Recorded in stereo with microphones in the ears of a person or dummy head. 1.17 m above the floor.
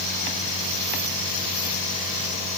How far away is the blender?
I don't hear a blender.